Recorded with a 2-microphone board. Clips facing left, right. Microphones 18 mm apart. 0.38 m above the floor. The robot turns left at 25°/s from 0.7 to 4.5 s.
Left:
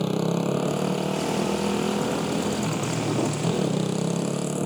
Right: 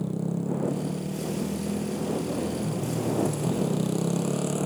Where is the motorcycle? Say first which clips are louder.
Left 5 dB; 100° left; by 4.7 s 5° left.